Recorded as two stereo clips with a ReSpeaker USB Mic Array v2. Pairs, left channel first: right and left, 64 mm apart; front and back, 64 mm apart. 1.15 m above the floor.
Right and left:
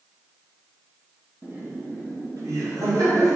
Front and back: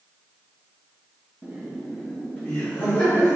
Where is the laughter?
130° left, 0.7 m; by 3.4 s 60° left, 1.9 m.